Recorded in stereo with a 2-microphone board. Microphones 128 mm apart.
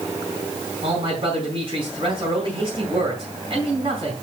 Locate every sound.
0.8 s a man speaking: 45° right (ahead or behind), 4 m